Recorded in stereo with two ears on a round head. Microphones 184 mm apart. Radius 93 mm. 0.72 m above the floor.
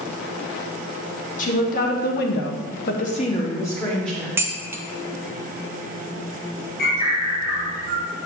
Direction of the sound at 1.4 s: 40° left (ahead or behind).